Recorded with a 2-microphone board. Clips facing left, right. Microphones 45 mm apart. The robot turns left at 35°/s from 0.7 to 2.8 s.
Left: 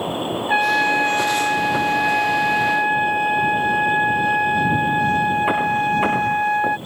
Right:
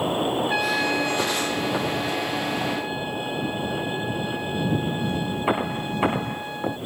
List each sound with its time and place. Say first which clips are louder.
0.5 s a trumpet: left 6 dB; 150° left; by 6.8 s 75° left